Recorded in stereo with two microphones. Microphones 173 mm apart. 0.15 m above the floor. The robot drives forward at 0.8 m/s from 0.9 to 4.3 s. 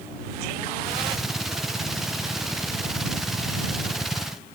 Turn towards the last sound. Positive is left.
No sound to turn to.